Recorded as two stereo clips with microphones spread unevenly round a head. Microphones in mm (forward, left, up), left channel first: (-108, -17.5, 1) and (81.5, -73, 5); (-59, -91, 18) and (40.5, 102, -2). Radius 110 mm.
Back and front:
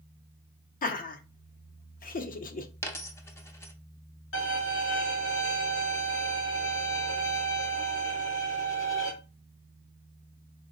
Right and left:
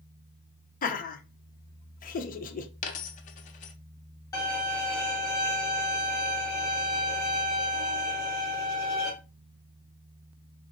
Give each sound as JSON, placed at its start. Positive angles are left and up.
{"t": 0.8, "sound": "laughter", "azimuth_deg": -165, "distance_m": 0.6}
{"t": 2.8, "sound": "a dropped coin", "azimuth_deg": -125, "distance_m": 0.5}
{"t": 4.3, "sound": "a violin", "azimuth_deg": 165, "distance_m": 1.8}